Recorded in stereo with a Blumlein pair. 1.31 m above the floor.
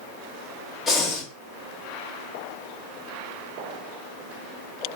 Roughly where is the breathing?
Ahead.